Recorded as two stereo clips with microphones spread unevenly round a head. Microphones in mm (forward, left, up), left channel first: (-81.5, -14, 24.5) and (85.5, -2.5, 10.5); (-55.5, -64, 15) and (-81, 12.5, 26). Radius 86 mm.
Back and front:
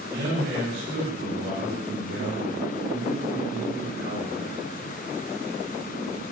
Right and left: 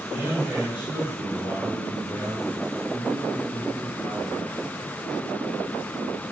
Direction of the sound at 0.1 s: 10° left.